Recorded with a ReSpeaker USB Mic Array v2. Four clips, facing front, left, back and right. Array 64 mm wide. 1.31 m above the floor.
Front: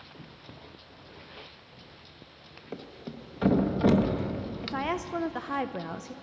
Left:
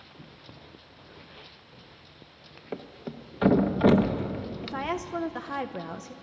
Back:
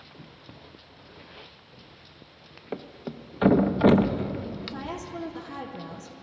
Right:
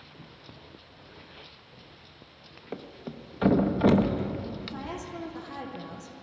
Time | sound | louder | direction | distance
2.7 | a thud | left 2 dB, back 5 dB | 165° left | 0.6 m
4.6 | a woman speaking | left 5 dB, front 4 dB | 35° left | 0.5 m